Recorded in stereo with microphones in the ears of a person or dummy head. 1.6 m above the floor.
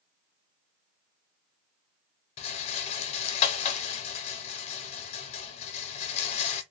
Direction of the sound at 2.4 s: 35° left (ahead or behind).